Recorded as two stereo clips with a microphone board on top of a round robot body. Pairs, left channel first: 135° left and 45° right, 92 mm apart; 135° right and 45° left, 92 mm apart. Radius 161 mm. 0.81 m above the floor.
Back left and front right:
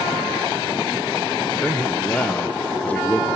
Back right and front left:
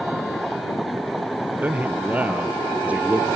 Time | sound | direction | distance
1.6 | a man speaking | 85° left | 0.8 m